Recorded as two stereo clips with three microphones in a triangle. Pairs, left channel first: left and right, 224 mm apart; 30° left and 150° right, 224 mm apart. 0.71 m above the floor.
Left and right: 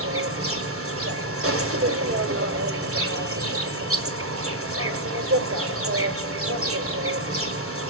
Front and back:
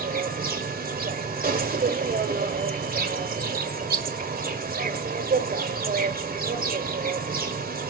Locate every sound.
0.0 s an insect: 100° right, 1.8 m